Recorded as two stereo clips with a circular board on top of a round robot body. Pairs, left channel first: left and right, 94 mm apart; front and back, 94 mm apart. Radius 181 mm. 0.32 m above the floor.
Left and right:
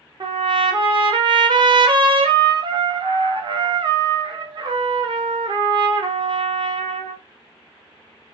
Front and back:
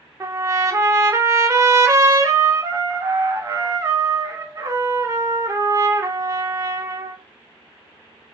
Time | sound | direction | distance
0.2 | a trumpet | 125° right | 0.7 m